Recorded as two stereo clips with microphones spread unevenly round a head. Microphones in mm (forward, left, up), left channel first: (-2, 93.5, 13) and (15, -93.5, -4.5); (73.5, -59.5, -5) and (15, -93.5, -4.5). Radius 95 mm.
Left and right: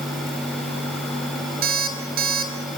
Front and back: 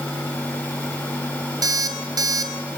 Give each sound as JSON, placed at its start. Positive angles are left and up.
{"t": 1.6, "sound": "an alarm clock", "azimuth_deg": -130, "distance_m": 3.5}